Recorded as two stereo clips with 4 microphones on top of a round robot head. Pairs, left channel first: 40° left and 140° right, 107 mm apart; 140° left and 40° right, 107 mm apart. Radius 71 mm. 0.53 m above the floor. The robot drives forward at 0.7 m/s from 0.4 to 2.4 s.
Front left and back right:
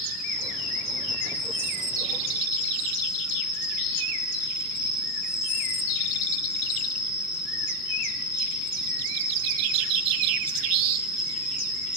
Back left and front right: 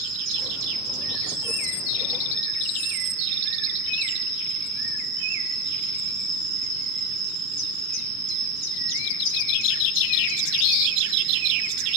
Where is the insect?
50° right, 8 m; by 12.0 s 60° right, 7 m.